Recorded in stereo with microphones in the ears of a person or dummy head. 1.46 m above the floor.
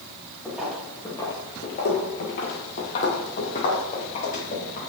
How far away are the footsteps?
About 2.5 m.